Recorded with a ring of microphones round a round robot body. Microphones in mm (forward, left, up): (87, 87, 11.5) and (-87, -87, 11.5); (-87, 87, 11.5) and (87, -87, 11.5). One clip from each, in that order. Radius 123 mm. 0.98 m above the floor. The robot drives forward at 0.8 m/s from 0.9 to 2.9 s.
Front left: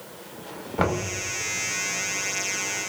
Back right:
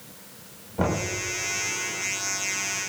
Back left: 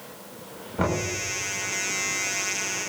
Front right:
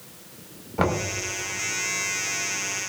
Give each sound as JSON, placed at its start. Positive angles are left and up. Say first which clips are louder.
{"t": 0.8, "sound": "knocking", "louder": "front left 1 dB, front right 2 dB", "azimuth_deg": 20, "distance_m": 5.0}